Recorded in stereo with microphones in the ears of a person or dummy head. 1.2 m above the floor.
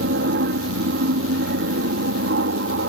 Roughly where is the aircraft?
Right.